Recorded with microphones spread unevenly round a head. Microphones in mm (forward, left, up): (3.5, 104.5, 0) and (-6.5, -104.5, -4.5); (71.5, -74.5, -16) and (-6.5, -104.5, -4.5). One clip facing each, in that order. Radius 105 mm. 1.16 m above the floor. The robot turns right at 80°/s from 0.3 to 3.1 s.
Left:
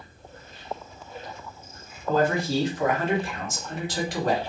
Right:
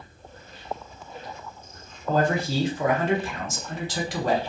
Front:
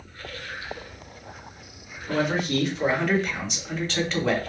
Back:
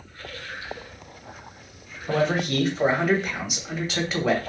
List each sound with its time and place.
2.1 s a man speaking: 155° right, 1.1 m; by 4.5 s 75° right, 1.1 m